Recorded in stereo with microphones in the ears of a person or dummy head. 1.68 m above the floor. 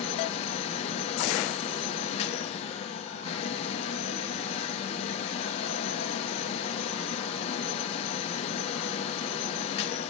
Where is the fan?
35° left (ahead or behind), 0.8 m.